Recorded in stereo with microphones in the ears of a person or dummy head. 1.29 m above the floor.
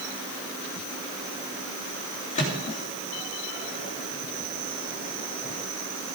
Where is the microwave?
35° left (ahead or behind), 3 m.